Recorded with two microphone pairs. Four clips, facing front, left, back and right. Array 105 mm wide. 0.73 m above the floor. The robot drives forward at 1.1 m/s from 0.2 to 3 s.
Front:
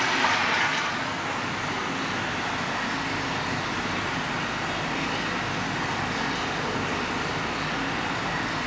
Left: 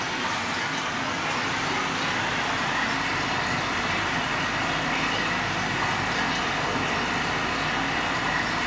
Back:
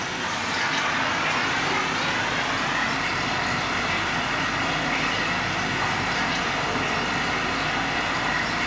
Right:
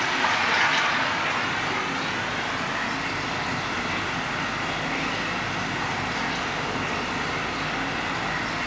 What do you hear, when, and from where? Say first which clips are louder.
0.0 s running water: right 4 dB, front 4 dB; 45° right, 0.8 m; by 8.7 s 165° right, 2.5 m